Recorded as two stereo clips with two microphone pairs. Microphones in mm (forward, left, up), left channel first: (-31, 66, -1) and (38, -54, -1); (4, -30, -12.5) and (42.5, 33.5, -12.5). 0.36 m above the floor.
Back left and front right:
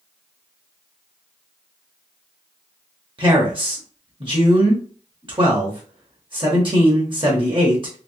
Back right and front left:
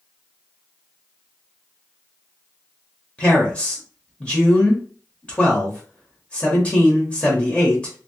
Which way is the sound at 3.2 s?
60° right.